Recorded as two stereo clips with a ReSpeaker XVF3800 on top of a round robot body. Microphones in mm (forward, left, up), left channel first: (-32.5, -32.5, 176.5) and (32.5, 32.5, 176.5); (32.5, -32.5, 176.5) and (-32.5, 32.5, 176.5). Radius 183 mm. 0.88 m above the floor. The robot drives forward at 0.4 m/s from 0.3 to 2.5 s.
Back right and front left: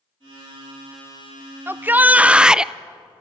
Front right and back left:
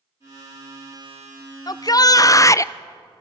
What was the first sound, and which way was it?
A shout, 15° right.